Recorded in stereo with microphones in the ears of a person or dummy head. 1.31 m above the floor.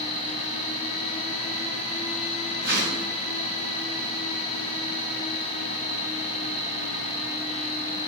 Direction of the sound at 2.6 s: 55° right (ahead or behind).